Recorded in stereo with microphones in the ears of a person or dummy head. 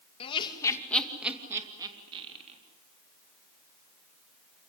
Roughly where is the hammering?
I don't hear hammering.